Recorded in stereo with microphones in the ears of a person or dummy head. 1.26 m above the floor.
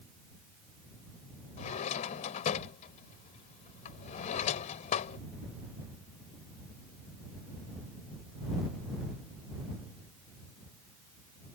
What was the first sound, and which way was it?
A drawer, 50° left (ahead or behind).